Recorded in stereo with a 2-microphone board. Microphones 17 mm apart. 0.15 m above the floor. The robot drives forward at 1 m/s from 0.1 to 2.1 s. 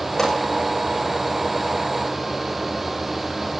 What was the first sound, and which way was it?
A pop, 20° left (ahead or behind).